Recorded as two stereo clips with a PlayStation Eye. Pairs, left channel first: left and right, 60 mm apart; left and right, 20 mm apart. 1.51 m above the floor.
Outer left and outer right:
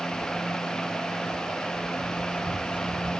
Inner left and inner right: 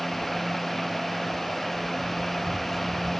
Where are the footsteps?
30° right (ahead or behind), 1.7 m; by 3.1 s 20° right (ahead or behind), 4 m.